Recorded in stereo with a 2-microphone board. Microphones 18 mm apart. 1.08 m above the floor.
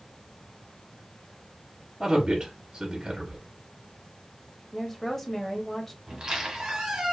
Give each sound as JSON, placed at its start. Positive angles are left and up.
{"t": 2.0, "sound": "a man speaking", "side_deg": -45, "distance_m": 0.9}
{"t": 4.7, "sound": "a woman speaking", "side_deg": 20, "distance_m": 0.7}
{"t": 6.1, "sound": "a squeak", "side_deg": -40, "distance_m": 1.1}